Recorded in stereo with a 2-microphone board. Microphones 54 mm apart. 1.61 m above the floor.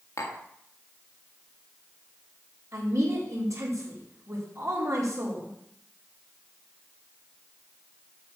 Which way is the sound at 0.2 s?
65° left (ahead or behind).